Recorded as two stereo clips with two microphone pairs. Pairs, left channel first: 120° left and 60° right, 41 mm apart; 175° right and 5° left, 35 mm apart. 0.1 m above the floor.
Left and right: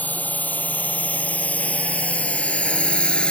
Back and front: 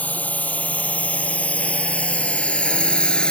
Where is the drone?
160° left.